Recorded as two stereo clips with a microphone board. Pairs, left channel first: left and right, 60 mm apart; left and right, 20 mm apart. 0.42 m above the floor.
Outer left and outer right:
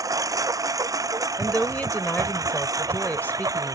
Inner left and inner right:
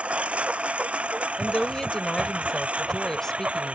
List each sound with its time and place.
0.0 s a lawn mower: 70° right (ahead or behind)
1.4 s a woman speaking: 30° left (ahead or behind)